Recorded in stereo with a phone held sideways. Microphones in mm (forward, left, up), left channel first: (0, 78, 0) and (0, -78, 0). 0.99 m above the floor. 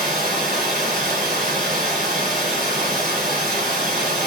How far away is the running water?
About 1.5 m.